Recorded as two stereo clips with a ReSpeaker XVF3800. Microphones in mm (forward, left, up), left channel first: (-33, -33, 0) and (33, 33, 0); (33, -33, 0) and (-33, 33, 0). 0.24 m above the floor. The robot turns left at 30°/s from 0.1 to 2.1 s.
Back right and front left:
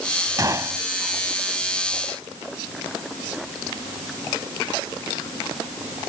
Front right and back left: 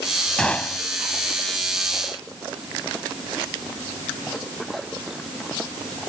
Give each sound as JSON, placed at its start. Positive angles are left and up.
{"t": 0.4, "sound": "a gunshot", "azimuth_deg": 30}